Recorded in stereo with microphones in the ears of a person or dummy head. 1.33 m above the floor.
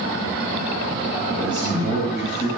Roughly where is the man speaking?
Centre.